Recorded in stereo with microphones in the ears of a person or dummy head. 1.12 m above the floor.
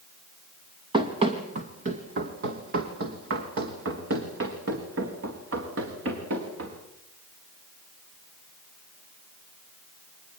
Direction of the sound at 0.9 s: 25° right (ahead or behind).